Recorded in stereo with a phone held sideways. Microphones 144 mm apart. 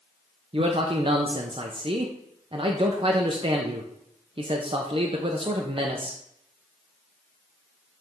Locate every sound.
0.5 s a man speaking: 40° right (ahead or behind), 0.7 m